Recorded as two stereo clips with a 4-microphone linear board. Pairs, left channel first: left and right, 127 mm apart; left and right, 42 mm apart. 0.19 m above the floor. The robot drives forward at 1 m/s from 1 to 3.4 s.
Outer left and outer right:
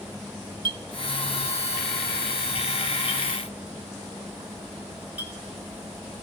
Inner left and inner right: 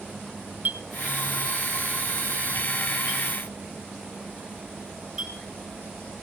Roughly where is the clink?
Right.